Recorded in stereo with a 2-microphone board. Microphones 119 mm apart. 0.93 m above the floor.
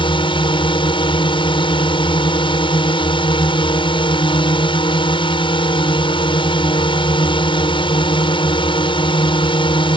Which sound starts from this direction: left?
A drone, at 0.0 s.